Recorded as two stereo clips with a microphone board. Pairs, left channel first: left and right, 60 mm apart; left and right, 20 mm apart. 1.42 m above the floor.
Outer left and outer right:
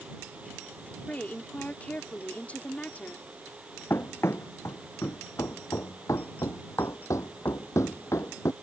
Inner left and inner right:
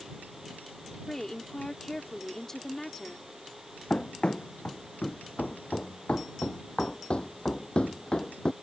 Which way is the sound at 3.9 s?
45° left (ahead or behind).